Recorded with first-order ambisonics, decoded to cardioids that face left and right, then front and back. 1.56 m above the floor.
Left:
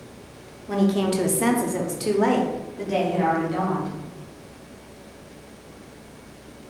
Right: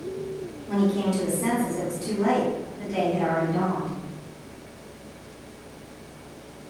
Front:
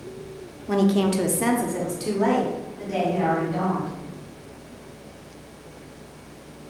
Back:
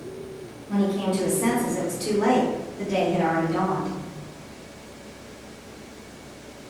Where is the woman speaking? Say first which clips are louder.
Left 3 dB, front 4 dB; 15° left, 0.7 m; by 4.0 s 110° left, 1.9 m.